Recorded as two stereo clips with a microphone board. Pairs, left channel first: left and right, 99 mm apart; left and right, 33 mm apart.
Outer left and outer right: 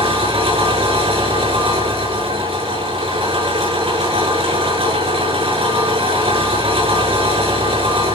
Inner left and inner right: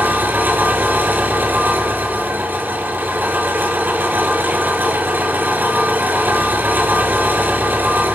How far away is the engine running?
About 7.5 m.